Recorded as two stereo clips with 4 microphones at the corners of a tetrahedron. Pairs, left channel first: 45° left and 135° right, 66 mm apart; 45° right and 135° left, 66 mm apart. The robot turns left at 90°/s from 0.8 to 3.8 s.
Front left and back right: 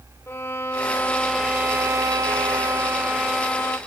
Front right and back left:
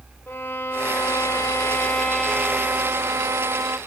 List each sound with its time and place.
0.3 s a violin: 5° left, 0.8 m; by 3.8 s 95° left, 0.8 m